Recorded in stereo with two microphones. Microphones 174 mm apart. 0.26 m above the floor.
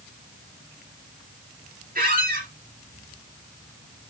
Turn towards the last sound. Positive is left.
turn(degrees=-55)  # may be behind; listen again after turning